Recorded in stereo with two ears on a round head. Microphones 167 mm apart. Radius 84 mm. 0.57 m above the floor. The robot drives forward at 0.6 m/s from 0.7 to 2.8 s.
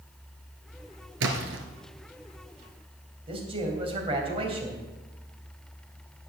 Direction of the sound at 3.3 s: 30° right (ahead or behind).